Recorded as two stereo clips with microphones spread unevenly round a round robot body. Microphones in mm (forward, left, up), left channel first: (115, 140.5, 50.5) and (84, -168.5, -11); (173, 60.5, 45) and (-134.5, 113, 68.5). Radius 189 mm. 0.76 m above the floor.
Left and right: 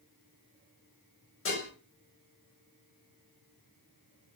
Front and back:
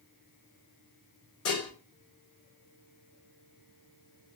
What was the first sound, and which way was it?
Dishes clattering, 30° left.